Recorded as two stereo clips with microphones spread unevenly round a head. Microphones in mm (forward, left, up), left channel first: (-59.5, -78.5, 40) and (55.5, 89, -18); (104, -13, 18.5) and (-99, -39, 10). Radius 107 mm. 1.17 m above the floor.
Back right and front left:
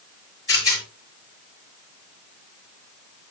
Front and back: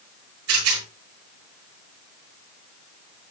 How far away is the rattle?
About 8.5 m.